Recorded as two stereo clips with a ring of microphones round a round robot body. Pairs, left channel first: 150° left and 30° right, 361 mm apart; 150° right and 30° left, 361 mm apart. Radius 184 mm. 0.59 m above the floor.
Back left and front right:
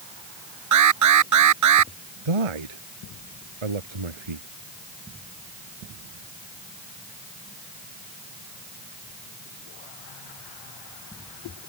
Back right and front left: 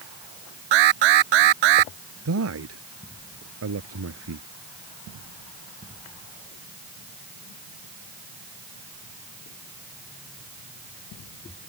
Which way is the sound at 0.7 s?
15° left.